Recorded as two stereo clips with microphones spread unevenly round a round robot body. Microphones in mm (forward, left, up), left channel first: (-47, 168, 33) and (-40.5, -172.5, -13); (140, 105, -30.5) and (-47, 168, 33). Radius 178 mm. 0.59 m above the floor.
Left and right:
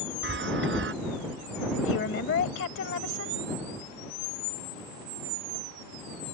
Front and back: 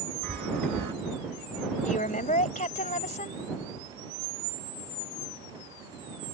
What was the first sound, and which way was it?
A chime, 150° right.